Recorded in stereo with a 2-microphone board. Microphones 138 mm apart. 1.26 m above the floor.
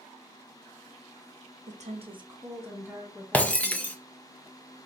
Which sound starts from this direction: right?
A woman speaking, at 1.7 s.